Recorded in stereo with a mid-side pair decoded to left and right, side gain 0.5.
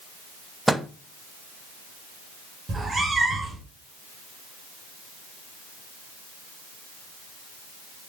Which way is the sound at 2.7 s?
30° right.